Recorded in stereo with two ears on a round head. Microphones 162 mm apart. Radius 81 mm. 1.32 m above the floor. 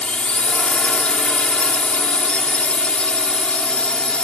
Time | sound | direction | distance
0.0 | a drone | 5° left (ahead or behind) | ?